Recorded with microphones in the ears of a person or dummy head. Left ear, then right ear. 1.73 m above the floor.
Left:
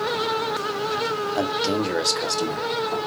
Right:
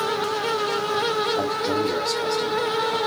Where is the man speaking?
55° left (ahead or behind), 1.6 m; by 3.0 s 85° left, 1.7 m.